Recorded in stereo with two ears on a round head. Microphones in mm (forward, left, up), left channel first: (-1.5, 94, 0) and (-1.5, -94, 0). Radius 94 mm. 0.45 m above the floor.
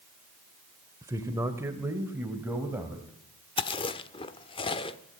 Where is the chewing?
25° left (ahead or behind), 1.3 m.